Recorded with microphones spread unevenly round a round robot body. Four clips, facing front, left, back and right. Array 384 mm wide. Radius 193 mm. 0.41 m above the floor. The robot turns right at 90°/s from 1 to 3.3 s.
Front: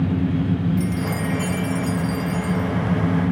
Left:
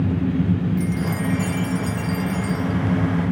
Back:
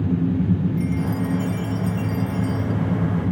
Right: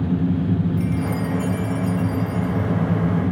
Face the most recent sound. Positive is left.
turn(degrees=-165)